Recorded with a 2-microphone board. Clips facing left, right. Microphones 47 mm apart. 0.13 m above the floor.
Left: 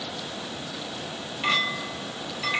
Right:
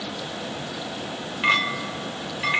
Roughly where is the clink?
Right.